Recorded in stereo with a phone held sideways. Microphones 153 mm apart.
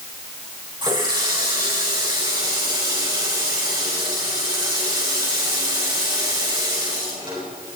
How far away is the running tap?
About 5.5 m.